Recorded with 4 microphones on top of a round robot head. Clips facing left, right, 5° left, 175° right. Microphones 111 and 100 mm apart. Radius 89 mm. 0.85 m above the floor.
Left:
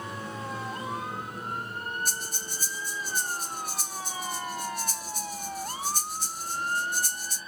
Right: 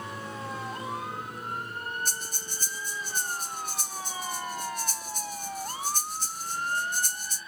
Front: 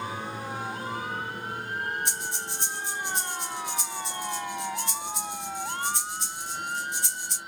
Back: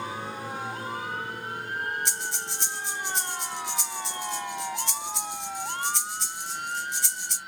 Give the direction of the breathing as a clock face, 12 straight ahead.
6 o'clock.